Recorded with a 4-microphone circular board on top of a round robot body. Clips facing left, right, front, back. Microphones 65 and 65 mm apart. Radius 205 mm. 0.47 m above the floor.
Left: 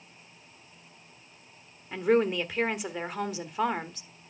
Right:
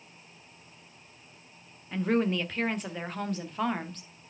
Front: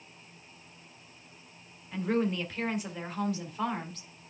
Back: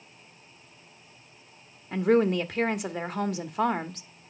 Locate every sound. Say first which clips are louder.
1.9 s a woman speaking: left 3 dB, back 7 dB; 170° left, 1.6 m